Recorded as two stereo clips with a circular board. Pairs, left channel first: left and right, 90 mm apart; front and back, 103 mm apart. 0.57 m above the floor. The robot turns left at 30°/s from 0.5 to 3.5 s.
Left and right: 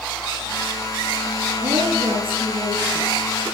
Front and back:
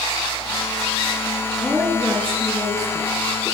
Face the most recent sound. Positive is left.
turn(degrees=-145)